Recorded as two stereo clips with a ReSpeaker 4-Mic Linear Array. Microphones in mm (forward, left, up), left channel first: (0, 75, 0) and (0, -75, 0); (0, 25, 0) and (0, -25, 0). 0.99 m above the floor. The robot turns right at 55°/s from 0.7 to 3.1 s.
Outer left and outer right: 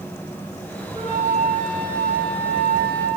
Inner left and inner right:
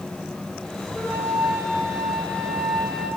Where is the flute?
35° left, 2.5 m; by 3.1 s 155° left, 2.5 m.